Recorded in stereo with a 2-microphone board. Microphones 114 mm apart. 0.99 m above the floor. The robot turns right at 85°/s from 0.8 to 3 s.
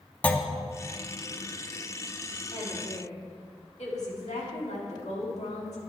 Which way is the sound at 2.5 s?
40° left.